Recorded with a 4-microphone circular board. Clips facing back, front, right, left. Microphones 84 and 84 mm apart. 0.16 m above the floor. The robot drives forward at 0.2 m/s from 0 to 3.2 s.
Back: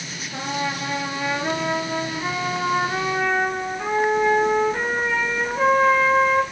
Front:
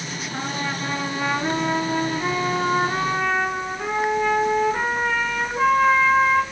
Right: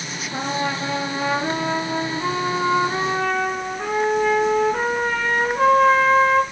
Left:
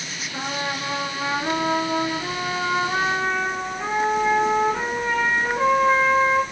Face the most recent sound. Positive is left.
turn(degrees=-95)